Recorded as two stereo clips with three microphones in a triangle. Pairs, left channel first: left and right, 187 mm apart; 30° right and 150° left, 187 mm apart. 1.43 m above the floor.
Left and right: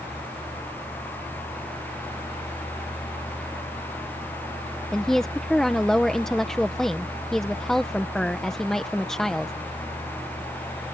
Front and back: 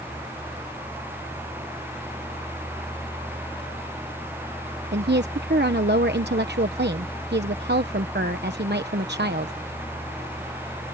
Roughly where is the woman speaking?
Behind.